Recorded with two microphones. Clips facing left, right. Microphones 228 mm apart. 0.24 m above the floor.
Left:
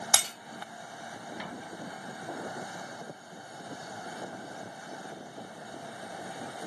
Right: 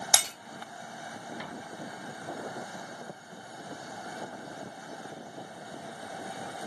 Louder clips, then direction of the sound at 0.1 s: Right 3 dB; 15° right (ahead or behind).